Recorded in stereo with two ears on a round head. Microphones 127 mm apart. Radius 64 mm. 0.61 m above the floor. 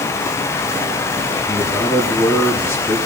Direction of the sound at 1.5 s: 15° left (ahead or behind).